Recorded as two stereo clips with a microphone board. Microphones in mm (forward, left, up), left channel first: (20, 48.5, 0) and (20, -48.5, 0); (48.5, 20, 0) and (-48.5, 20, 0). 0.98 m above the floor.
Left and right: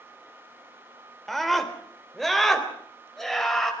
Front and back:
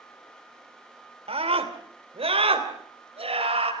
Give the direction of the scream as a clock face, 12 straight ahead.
6 o'clock.